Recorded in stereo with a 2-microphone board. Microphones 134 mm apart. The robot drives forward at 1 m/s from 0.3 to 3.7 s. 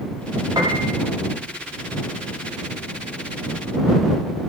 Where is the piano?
30° right (ahead or behind), 3.5 m; by 0.9 s 25° right (ahead or behind), 4 m.